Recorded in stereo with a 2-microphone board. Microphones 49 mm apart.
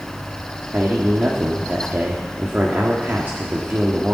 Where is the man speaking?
35° right (ahead or behind), 1.6 m.